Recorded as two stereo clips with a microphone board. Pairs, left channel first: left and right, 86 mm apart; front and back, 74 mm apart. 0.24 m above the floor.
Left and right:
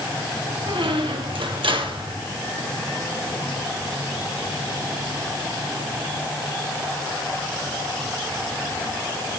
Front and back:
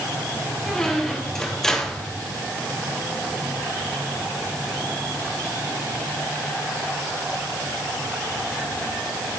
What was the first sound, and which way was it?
A squeak, 85° right.